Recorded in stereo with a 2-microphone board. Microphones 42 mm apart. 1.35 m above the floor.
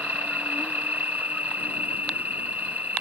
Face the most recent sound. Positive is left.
turn(degrees=-45)  # may be behind; listen again after turning